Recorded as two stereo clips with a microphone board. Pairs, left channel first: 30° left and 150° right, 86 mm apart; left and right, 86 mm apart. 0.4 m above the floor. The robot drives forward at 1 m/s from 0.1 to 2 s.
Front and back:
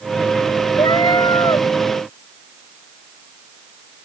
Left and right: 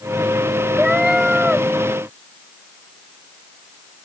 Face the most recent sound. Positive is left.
turn(degrees=-5)